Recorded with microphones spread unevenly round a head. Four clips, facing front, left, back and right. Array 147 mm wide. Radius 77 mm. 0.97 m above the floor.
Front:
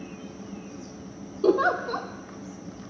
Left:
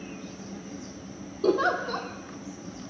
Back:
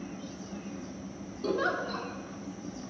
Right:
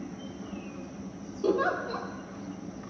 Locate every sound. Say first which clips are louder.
1.4 s a giggle: left 3 dB, front 8 dB; 15° left, 1.4 m